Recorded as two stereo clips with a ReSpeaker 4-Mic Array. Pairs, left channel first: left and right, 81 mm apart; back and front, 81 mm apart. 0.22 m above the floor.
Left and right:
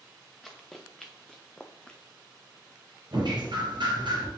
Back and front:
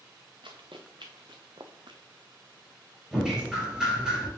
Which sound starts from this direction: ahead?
Running footsteps, at 0.4 s.